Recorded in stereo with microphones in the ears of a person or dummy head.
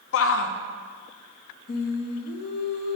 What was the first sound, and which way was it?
A shout, 65° left (ahead or behind).